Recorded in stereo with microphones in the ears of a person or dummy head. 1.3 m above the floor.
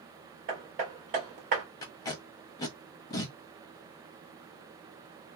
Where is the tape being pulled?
20° left (ahead or behind), 1.0 m.